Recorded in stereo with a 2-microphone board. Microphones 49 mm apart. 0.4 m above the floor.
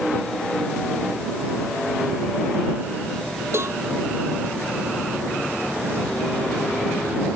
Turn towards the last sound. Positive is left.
turn(degrees=-55)  # may be behind; listen again after turning